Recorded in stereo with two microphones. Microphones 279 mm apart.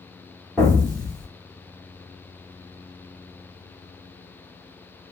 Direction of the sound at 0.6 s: Centre (ahead or behind).